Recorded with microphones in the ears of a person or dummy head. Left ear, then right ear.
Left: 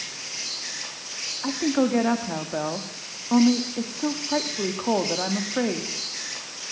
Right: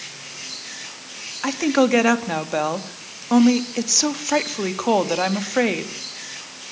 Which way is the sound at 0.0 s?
45° left (ahead or behind).